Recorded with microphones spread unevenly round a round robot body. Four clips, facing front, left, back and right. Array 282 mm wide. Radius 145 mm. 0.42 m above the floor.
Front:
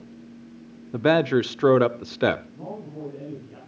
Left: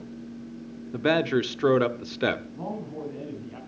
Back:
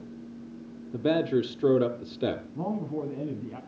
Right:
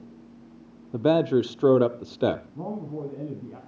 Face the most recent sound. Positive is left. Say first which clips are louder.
# right 1 dB, back 5 dB
turn(degrees=-155)